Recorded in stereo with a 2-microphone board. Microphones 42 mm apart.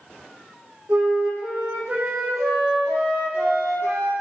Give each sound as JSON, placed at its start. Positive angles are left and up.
{"t": 0.9, "sound": "a flute", "side_deg": -80, "distance_m": 7.0}